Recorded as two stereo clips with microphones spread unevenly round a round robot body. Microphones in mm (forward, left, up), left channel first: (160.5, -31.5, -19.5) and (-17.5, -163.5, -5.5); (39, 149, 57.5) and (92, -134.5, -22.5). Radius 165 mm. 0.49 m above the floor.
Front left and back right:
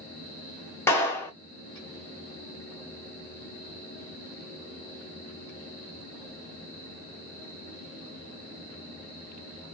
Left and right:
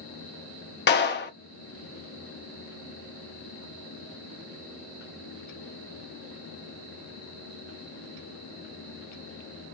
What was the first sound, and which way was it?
A clap, 80° left.